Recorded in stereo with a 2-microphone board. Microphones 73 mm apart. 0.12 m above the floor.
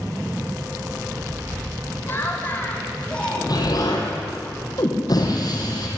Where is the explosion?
55° left (ahead or behind), 5 m.